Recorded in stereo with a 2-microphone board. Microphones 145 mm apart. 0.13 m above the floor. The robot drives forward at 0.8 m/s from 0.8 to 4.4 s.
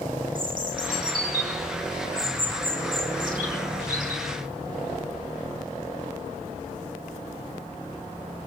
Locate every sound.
0.3 s a bird: 70° right (ahead or behind), 6 m